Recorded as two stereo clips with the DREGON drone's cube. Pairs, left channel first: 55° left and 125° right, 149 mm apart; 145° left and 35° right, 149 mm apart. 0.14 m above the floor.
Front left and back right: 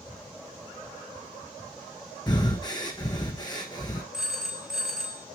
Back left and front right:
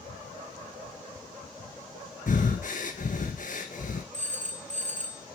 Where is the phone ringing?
40° right, 1.4 m.